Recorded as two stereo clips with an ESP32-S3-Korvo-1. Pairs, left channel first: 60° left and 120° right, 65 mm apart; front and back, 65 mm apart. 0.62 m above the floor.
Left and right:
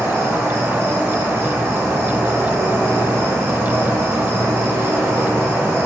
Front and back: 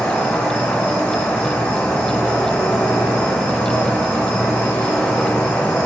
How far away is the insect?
About 0.9 m.